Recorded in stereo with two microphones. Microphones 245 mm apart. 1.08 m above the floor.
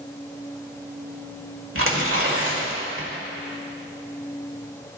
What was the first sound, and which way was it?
Tearing paper, 60° right (ahead or behind).